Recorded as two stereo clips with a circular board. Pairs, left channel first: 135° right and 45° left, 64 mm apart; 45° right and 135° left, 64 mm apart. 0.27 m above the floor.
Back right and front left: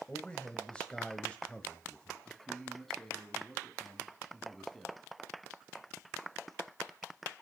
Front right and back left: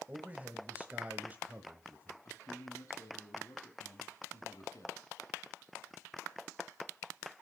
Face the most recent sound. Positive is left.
turn(degrees=-50)